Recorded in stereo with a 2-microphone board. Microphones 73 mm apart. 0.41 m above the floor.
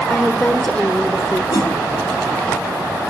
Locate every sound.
0.1 s a woman speaking: 15° left (ahead or behind), 1.2 m
1.5 s a whoosh: 65° left (ahead or behind), 3.5 m